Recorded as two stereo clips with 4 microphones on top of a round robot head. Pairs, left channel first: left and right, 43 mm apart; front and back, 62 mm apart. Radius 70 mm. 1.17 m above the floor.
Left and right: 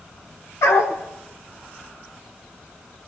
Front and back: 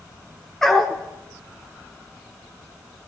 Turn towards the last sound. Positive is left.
turn(degrees=85)